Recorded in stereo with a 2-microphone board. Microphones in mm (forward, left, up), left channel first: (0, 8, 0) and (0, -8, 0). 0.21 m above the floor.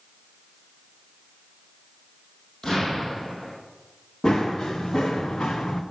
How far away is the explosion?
About 4 m.